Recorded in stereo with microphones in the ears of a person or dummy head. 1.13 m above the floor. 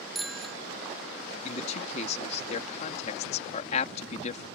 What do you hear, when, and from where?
0.1 s a bicycle bell: centre (ahead or behind)
1.4 s a man speaking: 40° left (ahead or behind)